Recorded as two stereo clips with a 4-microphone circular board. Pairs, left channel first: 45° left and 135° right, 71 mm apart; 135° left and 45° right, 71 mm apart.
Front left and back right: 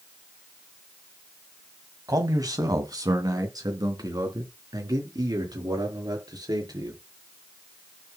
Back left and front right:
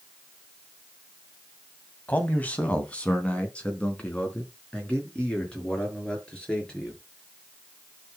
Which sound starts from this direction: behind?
A man speaking, at 2.1 s.